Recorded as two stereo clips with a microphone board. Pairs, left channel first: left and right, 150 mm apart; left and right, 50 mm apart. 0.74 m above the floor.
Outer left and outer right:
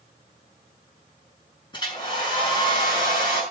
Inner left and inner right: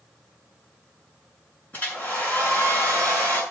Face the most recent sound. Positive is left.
turn(degrees=35)  # may be behind; listen again after turning